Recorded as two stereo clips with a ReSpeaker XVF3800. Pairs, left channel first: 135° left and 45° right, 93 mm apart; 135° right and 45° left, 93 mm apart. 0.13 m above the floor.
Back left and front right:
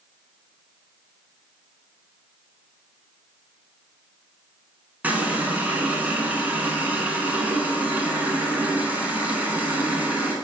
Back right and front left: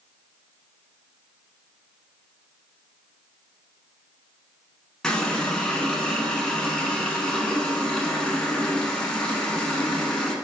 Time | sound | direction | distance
5.0 | a running tap | 70° right | 0.8 m